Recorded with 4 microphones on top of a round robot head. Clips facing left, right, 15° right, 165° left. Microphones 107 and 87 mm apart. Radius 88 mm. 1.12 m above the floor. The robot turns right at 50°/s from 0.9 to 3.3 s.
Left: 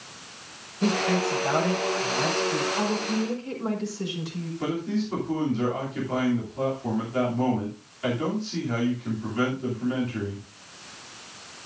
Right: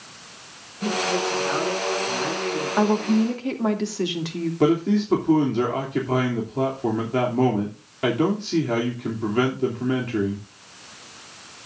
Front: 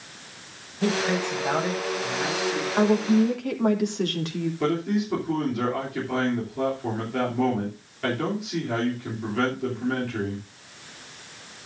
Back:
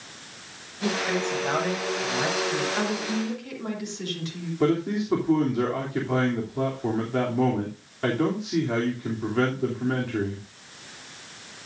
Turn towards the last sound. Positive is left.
turn(degrees=-120)